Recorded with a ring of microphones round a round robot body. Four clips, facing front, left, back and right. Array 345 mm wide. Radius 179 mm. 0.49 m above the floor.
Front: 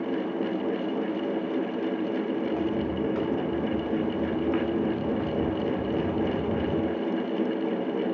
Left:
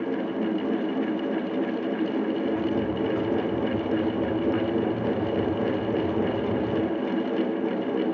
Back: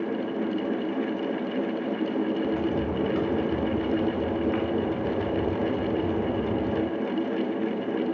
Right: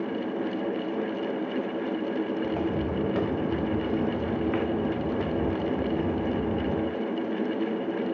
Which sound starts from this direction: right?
Footsteps, at 2.4 s.